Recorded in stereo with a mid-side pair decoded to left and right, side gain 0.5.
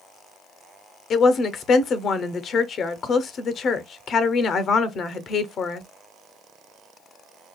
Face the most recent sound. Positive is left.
turn(degrees=55)